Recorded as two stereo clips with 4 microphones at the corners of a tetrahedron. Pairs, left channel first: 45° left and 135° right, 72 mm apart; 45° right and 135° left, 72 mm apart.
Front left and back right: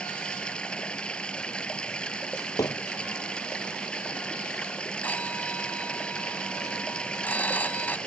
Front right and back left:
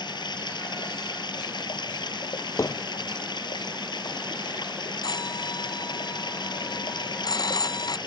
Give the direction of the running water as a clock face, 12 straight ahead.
1 o'clock.